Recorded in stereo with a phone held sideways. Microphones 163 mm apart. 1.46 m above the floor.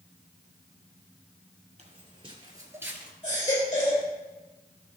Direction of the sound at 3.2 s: 50° left (ahead or behind).